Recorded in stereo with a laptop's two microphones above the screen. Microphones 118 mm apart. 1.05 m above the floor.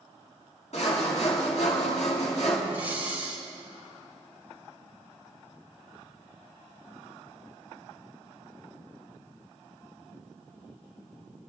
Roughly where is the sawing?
Left.